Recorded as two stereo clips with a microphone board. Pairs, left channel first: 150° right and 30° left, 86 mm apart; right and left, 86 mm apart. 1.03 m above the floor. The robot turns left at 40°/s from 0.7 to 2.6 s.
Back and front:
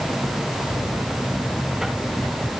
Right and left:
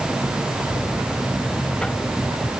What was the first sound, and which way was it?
Only background noise.